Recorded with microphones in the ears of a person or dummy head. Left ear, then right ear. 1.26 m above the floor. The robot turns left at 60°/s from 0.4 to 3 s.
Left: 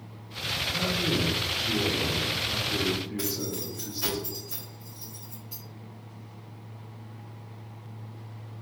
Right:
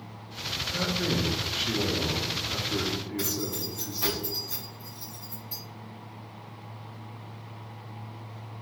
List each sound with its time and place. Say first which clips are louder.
0.7 s a man speaking: even; 45° right, 0.8 m; by 4.2 s straight behind, 0.8 m
3.2 s keys jangling: right 1 dB; centre (ahead or behind), 1.4 m